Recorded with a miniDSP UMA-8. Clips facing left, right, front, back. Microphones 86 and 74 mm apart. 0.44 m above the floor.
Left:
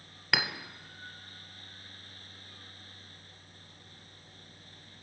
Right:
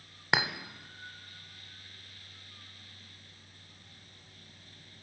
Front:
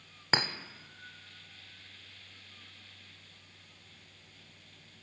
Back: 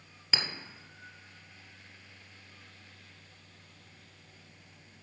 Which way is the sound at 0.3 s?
30° right.